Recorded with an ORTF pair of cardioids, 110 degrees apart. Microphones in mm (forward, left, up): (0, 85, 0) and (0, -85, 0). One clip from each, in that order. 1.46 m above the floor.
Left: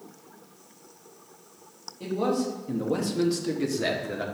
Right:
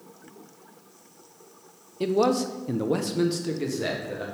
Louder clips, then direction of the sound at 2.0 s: Right 5 dB; 65° right.